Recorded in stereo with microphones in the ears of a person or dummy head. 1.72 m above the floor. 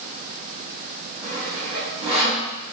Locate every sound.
1.2 s sawing: 30° right (ahead or behind), 0.8 m